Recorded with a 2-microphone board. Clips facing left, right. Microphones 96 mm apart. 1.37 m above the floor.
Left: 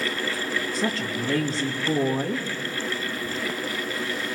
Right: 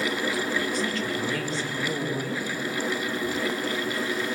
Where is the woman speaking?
35° left (ahead or behind), 2.5 m.